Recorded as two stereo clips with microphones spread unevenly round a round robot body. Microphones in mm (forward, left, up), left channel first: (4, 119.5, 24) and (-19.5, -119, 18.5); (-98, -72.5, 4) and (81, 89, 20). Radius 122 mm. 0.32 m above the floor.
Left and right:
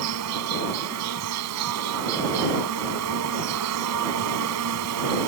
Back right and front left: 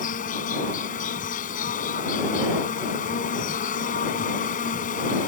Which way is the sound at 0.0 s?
80° right.